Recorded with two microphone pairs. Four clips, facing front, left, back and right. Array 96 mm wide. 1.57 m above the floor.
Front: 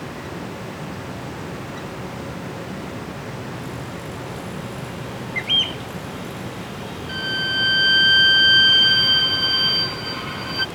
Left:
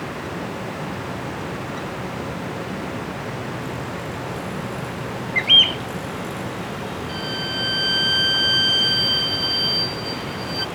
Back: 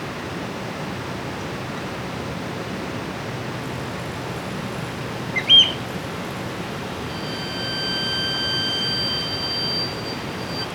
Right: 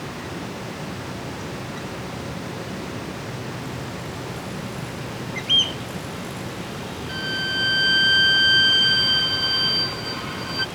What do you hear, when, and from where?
5.3 s a bird: 90° left
7.1 s a violin: 35° right